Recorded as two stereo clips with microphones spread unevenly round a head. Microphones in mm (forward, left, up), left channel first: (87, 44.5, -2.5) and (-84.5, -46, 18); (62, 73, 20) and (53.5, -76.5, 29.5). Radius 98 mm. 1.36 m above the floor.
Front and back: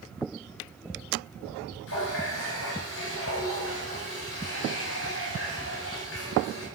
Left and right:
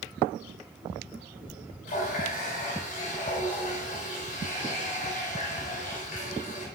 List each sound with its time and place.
1.9 s a running tap: 55° left, 3.5 m